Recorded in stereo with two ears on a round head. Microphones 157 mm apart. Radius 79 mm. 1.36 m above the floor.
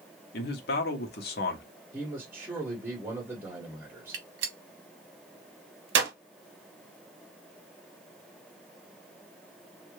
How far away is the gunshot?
About 0.9 m.